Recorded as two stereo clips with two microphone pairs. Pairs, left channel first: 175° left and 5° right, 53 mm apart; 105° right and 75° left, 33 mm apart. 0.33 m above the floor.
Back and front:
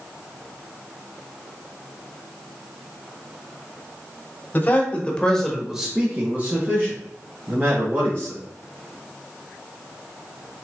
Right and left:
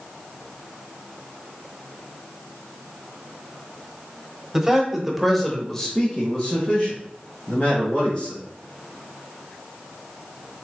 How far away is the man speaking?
About 1.2 m.